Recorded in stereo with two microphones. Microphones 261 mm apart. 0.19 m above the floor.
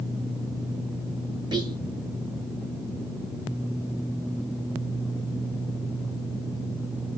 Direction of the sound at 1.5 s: 15° right (ahead or behind).